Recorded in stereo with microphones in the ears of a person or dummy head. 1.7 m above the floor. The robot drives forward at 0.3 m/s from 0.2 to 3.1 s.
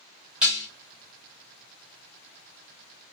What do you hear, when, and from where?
0.4 s dishes clattering: centre (ahead or behind), 0.9 m